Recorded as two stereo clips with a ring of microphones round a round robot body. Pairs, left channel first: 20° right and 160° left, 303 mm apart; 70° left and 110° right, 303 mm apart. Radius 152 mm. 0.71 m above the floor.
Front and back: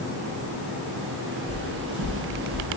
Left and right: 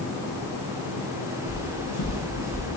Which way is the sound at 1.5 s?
120° left.